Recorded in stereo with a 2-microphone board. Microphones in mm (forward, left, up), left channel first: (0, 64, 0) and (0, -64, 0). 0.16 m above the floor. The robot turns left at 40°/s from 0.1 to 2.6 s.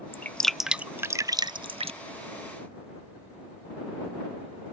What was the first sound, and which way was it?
Dripping, 15° left (ahead or behind).